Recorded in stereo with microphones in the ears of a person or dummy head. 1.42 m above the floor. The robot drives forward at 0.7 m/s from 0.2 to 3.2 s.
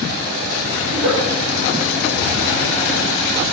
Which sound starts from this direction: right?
A giggle, at 0.8 s.